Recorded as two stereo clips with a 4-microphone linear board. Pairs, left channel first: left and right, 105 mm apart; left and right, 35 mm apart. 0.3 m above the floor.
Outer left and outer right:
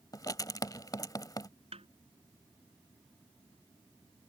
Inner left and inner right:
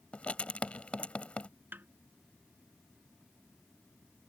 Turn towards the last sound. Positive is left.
turn(degrees=-75)  # may be behind; listen again after turning